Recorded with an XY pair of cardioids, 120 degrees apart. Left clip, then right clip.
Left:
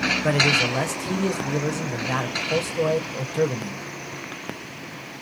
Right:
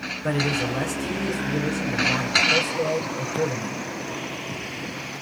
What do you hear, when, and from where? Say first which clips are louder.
0.2 s a man speaking: left 3 dB; 35° left, 1.0 m